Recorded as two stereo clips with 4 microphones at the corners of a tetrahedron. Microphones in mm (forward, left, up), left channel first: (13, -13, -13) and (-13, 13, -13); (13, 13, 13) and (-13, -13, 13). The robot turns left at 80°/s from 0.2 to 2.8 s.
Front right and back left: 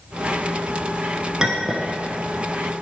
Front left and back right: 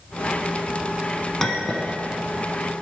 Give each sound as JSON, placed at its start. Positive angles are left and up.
{"t": 1.4, "sound": "a clink", "azimuth_deg": 100, "distance_m": 0.9}